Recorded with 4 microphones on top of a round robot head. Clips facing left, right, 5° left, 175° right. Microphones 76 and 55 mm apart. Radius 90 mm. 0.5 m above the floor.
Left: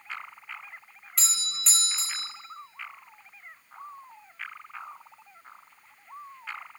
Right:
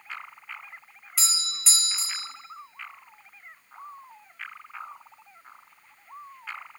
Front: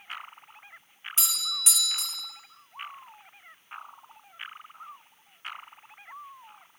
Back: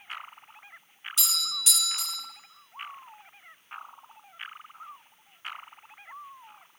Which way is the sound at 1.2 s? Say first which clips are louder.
Right 2 dB, even; 5° right.